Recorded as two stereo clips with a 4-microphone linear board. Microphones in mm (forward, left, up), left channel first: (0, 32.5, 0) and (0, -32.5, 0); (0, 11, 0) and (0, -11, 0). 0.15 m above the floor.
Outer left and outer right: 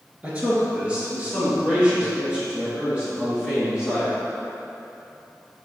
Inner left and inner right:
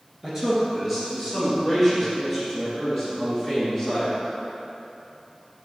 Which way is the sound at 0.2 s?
20° right (ahead or behind).